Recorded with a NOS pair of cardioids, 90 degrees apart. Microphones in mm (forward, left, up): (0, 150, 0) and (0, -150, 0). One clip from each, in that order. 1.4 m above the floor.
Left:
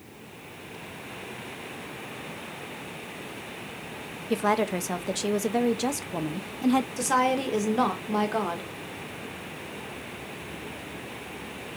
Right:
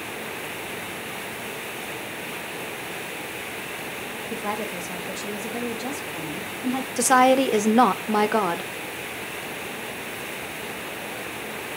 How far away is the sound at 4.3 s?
About 0.7 m.